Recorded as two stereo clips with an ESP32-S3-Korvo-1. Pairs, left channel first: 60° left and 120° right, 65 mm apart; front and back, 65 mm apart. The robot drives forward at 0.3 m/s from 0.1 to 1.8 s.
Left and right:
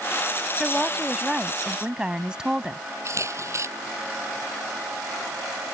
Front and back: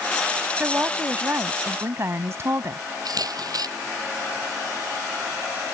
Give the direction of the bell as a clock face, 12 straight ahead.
I don't hear a bell.